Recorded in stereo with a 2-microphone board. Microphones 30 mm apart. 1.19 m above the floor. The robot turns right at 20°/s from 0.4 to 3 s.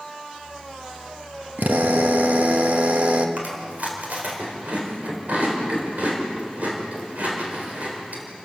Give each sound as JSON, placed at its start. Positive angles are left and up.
{"t": 1.6, "sound": "a drill", "side_deg": -75, "distance_m": 1.2}
{"t": 3.4, "sound": "chewing", "side_deg": -65, "distance_m": 4.0}